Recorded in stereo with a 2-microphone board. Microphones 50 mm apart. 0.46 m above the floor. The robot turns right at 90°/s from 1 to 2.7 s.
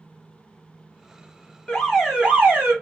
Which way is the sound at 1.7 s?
150° left.